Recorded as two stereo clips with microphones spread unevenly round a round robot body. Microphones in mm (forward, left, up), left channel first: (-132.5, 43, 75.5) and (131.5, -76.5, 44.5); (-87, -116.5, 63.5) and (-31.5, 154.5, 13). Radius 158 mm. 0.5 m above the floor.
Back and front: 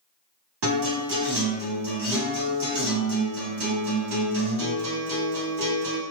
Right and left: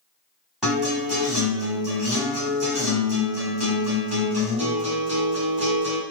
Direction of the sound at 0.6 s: Straight ahead.